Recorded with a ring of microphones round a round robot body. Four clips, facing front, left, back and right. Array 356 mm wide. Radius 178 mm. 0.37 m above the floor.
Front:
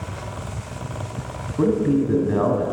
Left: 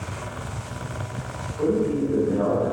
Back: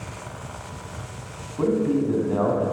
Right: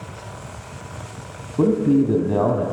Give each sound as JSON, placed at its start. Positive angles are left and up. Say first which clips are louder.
{"t": 1.6, "sound": "a man speaking", "louder": "right 5 dB, front 3 dB", "azimuth_deg": -65, "distance_m": 2.5}